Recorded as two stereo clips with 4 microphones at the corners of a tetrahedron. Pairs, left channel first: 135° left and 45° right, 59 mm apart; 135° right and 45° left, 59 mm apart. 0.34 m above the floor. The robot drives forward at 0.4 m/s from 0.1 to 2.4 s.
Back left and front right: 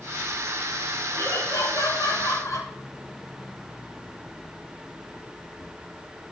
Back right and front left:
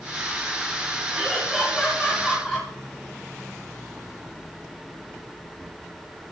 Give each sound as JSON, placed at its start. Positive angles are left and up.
{"t": 1.1, "sound": "laughter", "azimuth_deg": 135, "distance_m": 4.0}